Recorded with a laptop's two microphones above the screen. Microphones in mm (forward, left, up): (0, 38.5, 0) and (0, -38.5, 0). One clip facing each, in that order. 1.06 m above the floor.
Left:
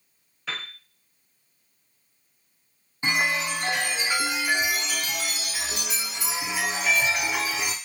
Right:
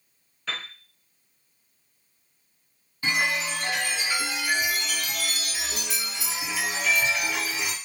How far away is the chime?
About 0.6 m.